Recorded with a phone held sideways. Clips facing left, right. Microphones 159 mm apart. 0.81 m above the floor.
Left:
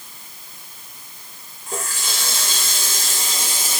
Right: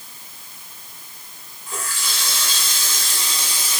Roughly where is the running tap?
Left.